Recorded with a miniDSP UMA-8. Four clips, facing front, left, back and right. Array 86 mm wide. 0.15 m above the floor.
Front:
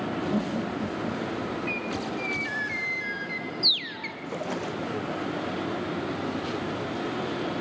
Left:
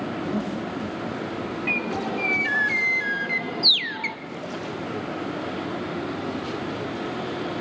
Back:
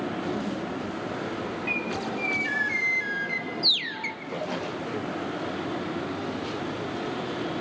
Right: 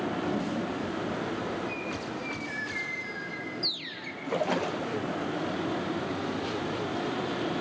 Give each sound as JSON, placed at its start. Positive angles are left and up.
{"t": 0.3, "sound": "laughter", "azimuth_deg": 5, "distance_m": 7.5}
{"t": 1.7, "sound": "a bird", "azimuth_deg": 105, "distance_m": 0.8}
{"t": 4.3, "sound": "a splash", "azimuth_deg": -80, "distance_m": 3.0}